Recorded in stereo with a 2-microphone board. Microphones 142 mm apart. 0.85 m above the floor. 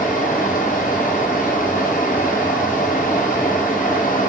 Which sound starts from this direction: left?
Running water, at 0.0 s.